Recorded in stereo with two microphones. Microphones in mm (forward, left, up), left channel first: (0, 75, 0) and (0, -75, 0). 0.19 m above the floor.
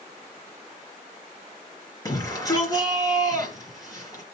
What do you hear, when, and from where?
2.0 s a shout: 25° left (ahead or behind), 3.5 m